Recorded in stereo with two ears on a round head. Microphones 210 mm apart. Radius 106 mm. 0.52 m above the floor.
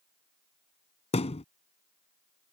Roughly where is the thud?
Left.